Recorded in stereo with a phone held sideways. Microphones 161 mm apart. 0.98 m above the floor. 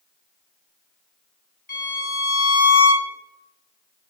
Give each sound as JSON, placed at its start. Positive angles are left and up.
{"t": 1.7, "sound": "a violin", "side_deg": 55, "distance_m": 1.5}